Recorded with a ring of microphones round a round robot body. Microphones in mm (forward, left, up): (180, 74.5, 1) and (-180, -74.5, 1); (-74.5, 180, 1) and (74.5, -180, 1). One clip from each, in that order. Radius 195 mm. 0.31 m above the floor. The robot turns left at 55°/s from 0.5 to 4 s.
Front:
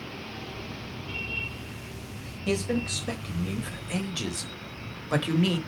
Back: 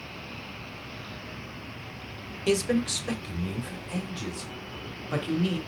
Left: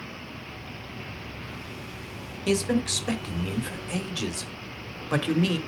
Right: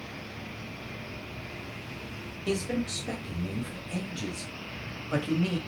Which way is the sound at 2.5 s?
165° left.